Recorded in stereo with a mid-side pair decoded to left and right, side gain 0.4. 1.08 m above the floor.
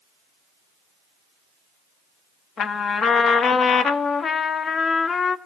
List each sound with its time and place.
2.6 s a trumpet: 55° left, 1.2 m